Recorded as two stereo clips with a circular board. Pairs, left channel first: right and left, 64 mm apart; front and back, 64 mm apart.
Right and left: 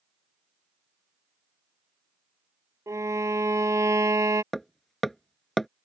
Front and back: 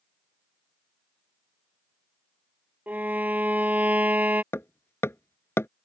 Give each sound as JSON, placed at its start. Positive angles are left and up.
{"t": 2.9, "sound": "a violin", "azimuth_deg": 120}
{"t": 4.5, "sound": "hammering", "azimuth_deg": -5}